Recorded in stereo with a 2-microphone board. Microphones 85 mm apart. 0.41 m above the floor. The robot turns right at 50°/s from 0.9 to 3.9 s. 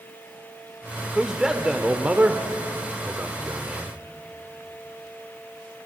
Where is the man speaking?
5° right (ahead or behind), 1.1 m; by 4.0 s 15° right (ahead or behind), 1.1 m.